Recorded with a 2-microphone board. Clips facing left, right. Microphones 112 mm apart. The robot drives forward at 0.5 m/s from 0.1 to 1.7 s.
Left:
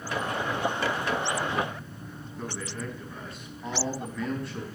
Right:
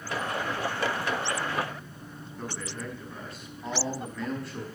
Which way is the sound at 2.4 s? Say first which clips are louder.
Left 1 dB; centre (ahead or behind).